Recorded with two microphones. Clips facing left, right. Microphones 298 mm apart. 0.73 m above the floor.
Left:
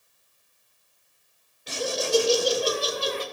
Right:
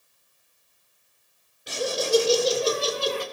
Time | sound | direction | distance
1.7 | laughter | 15° right (ahead or behind) | 2.5 m